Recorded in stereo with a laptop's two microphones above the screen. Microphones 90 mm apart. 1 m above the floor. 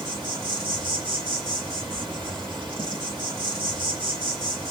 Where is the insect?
65° right (ahead or behind), 1.5 m.